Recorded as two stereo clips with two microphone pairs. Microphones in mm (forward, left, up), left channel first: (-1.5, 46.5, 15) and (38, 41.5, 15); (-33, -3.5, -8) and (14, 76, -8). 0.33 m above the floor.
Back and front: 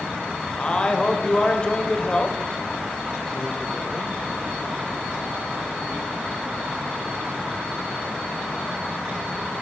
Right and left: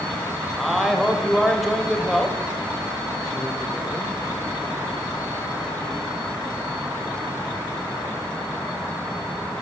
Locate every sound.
0.6 s a man speaking: 145° left, 1.0 m